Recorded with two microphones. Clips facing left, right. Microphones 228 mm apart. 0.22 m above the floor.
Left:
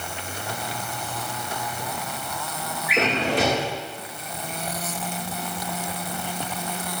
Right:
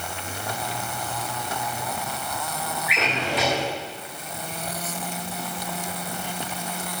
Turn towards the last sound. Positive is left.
turn(degrees=45)  # may be behind; listen again after turning